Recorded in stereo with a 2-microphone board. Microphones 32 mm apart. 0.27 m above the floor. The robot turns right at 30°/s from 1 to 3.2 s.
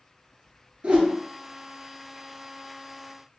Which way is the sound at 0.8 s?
45° right (ahead or behind).